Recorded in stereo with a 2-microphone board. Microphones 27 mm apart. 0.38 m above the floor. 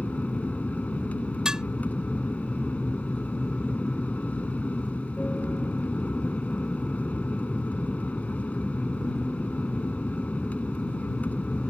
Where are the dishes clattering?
30° right (ahead or behind).